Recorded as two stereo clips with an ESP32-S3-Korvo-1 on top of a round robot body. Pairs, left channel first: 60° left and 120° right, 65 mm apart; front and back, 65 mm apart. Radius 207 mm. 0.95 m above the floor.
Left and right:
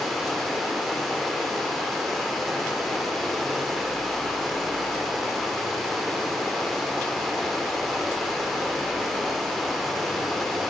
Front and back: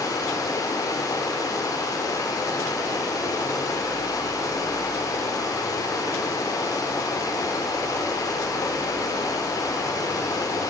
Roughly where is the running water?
Ahead right.